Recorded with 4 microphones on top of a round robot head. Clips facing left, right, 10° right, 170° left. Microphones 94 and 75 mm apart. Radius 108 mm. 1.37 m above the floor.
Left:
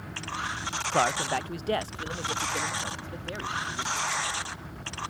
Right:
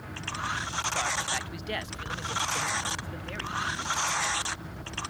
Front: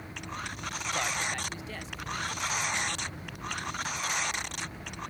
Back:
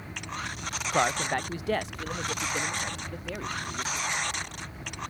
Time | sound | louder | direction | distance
0.9 | a man speaking | left 9 dB, back 8 dB | 120° left | ?